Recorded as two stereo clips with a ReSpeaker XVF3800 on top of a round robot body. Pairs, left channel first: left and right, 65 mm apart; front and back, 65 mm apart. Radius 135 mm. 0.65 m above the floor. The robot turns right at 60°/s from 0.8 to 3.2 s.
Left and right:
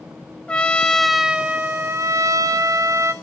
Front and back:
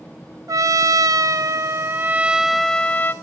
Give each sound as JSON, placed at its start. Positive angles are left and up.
{"t": 0.5, "sound": "a trumpet", "azimuth_deg": 165, "distance_m": 0.9}